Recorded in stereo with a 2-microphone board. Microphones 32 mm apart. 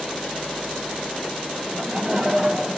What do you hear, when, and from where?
1.6 s laughter: 20° right (ahead or behind), 1.2 m; by 2.8 s 40° right (ahead or behind), 1.9 m